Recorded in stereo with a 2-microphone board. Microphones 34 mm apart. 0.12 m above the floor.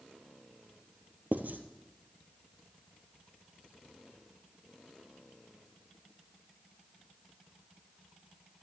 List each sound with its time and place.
1.3 s writing: 55° right (ahead or behind), 1.1 m